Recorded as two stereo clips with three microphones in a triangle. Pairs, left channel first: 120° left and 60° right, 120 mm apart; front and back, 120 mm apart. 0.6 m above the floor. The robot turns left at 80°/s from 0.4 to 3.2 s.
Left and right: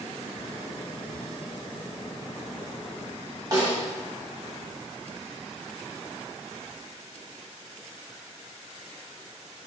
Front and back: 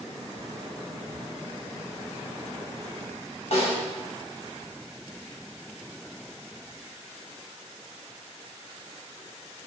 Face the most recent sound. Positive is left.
turn(degrees=-5)